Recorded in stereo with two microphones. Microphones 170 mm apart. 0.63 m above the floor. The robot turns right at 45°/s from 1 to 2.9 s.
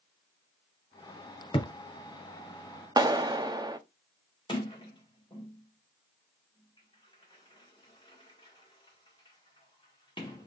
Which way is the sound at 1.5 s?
35° left (ahead or behind).